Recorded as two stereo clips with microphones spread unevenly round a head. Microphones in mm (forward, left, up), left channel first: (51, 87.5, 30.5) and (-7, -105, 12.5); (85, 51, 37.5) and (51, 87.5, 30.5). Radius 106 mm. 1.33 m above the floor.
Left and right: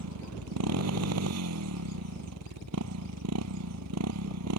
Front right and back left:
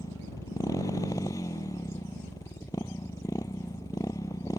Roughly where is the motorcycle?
Right.